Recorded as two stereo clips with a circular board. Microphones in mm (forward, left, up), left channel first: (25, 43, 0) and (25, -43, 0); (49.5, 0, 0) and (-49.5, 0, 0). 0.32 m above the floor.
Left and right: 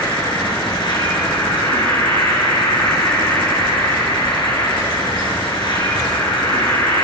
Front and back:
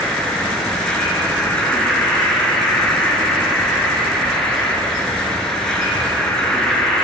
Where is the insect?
80° left, 6 m.